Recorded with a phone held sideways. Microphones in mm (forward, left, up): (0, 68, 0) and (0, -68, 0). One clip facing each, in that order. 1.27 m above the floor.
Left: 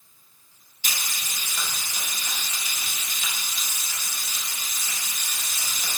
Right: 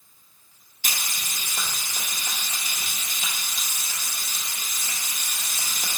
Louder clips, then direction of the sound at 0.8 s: Right 1 dB; 50° right (ahead or behind).